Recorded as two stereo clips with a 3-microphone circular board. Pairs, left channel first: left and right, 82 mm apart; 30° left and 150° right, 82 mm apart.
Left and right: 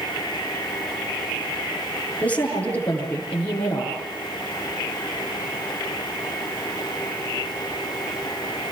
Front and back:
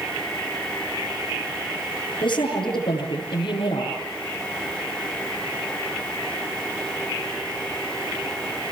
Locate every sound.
2.2 s a woman speaking: 15° left, 10 m